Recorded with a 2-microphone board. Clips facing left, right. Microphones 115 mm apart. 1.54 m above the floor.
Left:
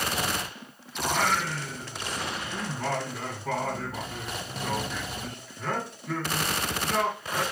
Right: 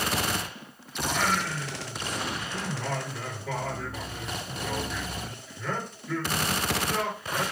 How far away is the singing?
About 2.5 m.